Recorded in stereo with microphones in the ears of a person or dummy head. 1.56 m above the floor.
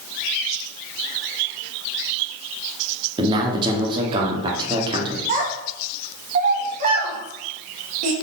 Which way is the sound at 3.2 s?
25° right (ahead or behind).